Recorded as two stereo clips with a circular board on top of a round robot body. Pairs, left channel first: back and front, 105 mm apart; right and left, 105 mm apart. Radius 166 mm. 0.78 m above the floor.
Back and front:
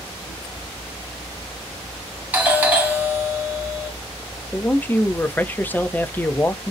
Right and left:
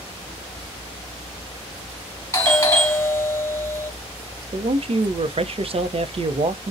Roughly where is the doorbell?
Ahead right.